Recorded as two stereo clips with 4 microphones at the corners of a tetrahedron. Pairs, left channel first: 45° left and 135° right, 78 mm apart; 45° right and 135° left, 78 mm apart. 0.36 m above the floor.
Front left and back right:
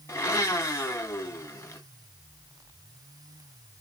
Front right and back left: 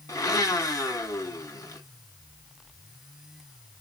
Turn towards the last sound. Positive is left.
turn(degrees=-5)